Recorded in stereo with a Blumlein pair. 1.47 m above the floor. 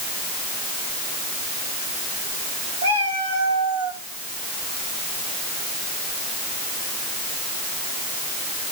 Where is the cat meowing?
65° right, 3 m; by 4.0 s 45° right, 1.7 m.